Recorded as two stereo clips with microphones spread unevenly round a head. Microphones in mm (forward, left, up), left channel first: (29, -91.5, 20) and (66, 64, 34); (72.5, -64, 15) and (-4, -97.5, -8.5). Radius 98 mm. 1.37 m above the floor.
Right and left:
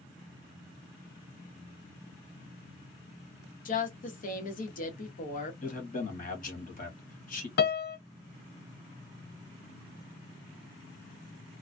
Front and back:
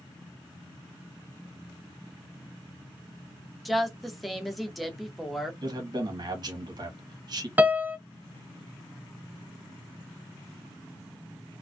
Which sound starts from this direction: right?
A piano, at 7.6 s.